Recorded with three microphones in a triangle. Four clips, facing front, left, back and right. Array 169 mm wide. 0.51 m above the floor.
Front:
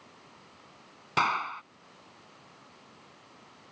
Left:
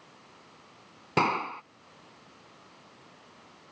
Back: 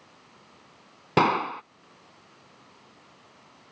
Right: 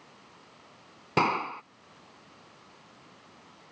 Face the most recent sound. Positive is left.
turn(degrees=180)